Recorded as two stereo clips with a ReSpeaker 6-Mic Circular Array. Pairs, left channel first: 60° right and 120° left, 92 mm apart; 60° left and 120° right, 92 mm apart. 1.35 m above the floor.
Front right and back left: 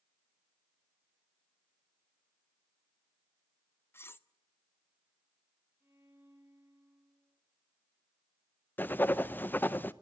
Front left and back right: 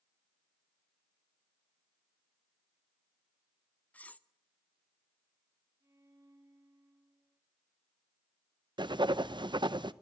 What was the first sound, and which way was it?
Cutlery clinking, 10° right.